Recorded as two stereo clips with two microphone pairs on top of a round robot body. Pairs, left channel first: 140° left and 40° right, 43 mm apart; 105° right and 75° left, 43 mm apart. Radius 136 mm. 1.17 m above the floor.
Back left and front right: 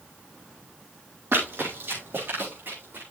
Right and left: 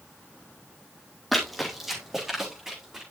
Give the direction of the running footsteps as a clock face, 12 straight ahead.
1 o'clock.